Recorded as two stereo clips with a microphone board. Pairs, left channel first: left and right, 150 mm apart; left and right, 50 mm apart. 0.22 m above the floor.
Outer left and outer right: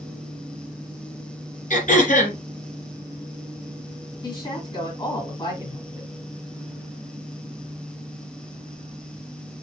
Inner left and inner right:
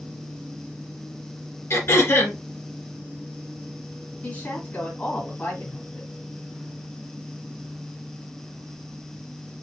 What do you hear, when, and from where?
1.7 s throat clearing: 60° left (ahead or behind), 2.5 m
4.2 s a woman speaking: 30° left (ahead or behind), 2 m